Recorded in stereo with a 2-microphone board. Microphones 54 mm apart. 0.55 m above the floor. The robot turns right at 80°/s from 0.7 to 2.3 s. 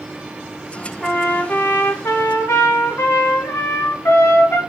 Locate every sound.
1.0 s a trumpet: 5° left, 0.9 m; by 4.6 s 110° left, 0.9 m